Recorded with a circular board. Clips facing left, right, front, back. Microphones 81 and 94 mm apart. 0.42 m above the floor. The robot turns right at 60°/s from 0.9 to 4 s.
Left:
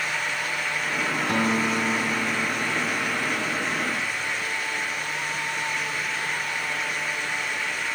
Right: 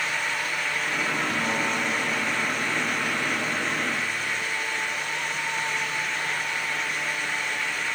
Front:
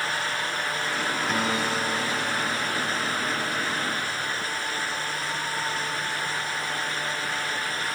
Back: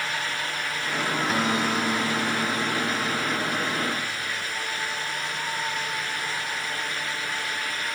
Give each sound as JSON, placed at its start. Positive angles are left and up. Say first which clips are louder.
{"t": 1.3, "sound": "a guitar", "louder": "left 3 dB, back 2 dB", "azimuth_deg": 95, "distance_m": 3.5}